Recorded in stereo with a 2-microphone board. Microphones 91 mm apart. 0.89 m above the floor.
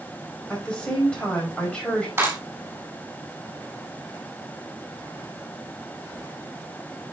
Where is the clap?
25° right (ahead or behind), 5 m.